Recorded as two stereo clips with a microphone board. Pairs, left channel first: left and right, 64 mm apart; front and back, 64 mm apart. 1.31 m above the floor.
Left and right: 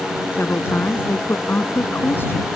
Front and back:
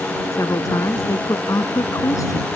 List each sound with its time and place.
0.3 s a woman speaking: 35° left